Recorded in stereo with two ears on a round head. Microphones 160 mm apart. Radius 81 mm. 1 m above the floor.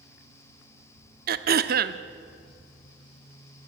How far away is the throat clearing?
About 0.8 m.